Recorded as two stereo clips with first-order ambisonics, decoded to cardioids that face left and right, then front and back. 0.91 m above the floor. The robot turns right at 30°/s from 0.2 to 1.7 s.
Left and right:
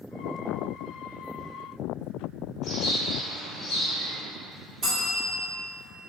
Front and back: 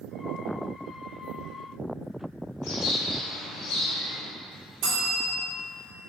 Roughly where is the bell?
Behind.